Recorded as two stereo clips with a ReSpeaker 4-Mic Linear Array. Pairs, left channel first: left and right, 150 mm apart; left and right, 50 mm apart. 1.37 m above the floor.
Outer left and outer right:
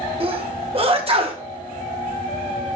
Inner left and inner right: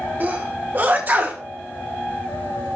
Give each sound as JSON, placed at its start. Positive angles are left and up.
{"t": 0.2, "sound": "a sneeze", "side_deg": -40, "distance_m": 2.0}